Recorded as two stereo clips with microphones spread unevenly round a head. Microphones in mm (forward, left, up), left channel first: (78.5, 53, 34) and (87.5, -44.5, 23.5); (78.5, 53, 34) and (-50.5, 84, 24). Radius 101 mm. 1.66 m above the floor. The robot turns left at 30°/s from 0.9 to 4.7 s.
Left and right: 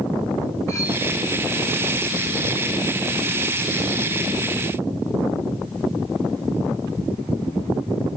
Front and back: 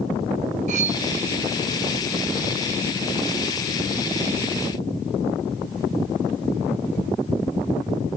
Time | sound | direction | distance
0.7 | cutlery clinking | 155° left | 1.3 m